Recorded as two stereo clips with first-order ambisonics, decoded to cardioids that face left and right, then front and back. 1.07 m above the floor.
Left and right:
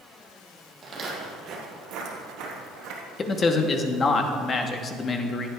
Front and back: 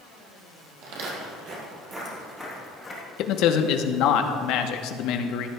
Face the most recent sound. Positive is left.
turn(degrees=25)